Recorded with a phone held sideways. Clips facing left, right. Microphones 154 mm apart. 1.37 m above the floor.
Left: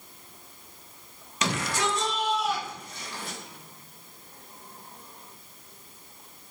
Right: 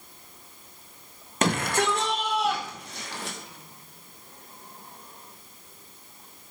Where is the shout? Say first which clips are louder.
Right 4 dB; 50° right (ahead or behind), 1.8 m; by 3.4 s 75° right (ahead or behind), 3 m.